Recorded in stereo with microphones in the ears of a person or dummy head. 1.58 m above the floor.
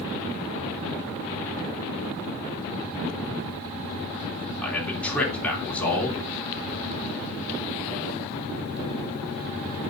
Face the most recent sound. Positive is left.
turn(degrees=10)  # may be behind; listen again after turning